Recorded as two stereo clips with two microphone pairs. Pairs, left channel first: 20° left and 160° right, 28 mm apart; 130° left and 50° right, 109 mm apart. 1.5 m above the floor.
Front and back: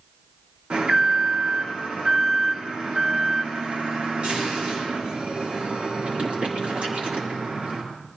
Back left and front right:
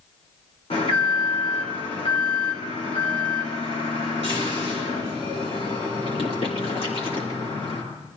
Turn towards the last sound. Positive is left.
turn(degrees=155)